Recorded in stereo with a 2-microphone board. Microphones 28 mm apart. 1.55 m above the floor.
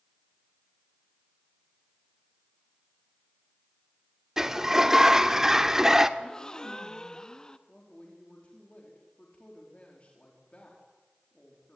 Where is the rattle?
I don't hear a rattle.